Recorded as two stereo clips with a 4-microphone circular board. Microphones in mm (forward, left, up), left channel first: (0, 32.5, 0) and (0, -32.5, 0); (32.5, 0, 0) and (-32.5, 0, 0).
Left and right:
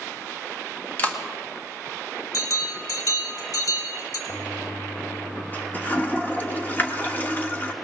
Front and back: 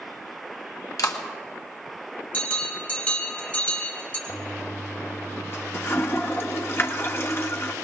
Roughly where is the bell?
Left.